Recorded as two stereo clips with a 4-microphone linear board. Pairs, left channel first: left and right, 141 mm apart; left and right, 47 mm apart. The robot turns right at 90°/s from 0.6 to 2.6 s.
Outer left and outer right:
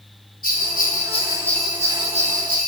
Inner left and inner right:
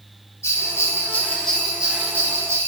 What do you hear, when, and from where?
0.4 s a bell: 90° left, 0.6 m; by 2.7 s 90° right, 0.6 m